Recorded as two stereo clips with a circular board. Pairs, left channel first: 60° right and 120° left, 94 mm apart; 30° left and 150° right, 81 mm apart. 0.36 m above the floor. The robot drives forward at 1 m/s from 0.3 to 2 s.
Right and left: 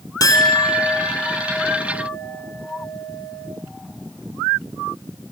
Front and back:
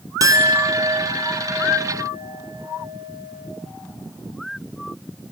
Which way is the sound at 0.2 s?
110° right.